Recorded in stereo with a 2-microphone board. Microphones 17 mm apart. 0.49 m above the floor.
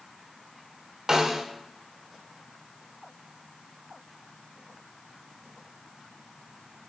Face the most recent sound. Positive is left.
turn(degrees=-35)  # may be behind; listen again after turning